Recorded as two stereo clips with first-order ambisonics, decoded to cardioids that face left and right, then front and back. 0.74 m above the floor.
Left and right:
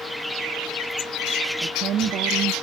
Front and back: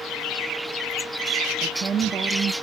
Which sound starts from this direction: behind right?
A woman speaking, at 1.6 s.